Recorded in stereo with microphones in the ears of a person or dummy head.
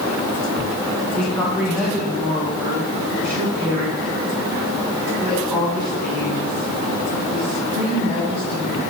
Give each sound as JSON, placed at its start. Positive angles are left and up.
{"t": 1.1, "sound": "a woman speaking", "side_deg": 5, "distance_m": 2.0}